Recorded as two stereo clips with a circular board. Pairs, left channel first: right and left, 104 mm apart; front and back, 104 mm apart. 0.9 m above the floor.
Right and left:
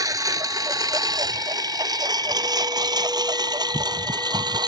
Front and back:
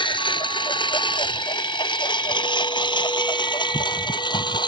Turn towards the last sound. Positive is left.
turn(degrees=40)